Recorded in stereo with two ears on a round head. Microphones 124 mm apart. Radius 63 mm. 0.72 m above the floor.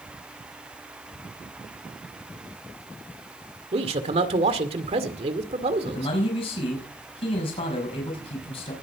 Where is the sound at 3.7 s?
50° right (ahead or behind), 1.9 m.